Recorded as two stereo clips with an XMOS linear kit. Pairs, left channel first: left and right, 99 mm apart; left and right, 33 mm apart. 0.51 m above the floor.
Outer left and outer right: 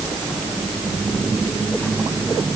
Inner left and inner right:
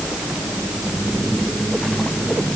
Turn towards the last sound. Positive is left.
No sound to turn to.